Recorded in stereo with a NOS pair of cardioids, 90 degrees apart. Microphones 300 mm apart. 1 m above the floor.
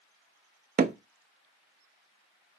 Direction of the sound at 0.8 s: 30° right.